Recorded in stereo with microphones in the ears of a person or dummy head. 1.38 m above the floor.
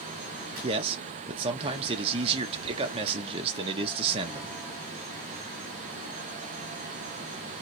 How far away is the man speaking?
About 0.6 m.